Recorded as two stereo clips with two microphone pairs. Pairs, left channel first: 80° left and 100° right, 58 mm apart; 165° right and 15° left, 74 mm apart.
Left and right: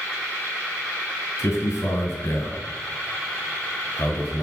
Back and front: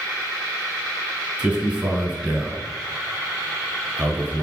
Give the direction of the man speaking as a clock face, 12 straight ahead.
9 o'clock.